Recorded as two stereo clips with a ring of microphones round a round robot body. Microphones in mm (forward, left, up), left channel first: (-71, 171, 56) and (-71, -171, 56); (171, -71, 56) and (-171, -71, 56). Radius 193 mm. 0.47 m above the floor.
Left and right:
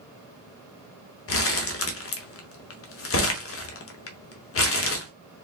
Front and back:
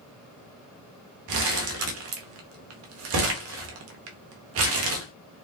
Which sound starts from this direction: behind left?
Crumpling, at 1.3 s.